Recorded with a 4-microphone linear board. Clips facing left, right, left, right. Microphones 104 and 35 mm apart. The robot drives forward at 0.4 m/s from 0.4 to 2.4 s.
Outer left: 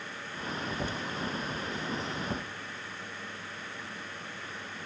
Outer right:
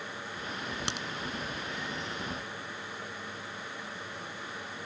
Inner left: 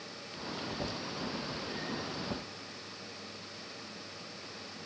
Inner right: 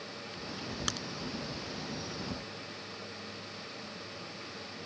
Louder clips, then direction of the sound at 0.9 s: Even, inner right 4 dB; 85° right.